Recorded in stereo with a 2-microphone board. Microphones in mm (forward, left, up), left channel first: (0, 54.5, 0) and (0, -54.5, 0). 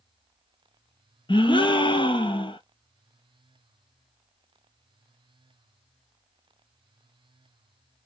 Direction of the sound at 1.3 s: 50° left (ahead or behind).